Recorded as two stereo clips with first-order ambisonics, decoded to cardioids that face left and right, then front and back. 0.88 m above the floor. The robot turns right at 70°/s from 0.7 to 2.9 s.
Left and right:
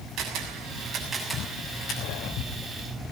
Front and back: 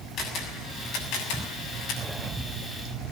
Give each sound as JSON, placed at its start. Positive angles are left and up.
{"t": 0.2, "sound": "a camera shutter", "azimuth_deg": -45, "distance_m": 7.0}